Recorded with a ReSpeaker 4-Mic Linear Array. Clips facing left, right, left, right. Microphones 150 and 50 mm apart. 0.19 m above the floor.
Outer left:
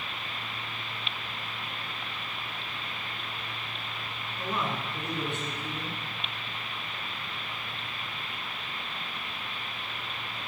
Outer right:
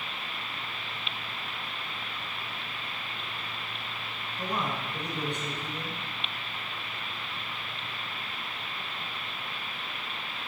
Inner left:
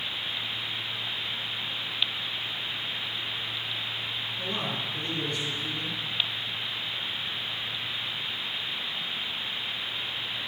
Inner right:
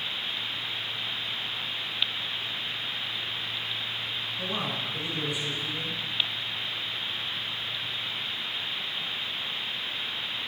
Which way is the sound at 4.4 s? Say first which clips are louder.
Even, inner right 1 dB; 15° right (ahead or behind).